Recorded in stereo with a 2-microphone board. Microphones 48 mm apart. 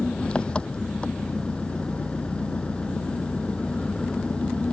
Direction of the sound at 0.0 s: 25° left (ahead or behind).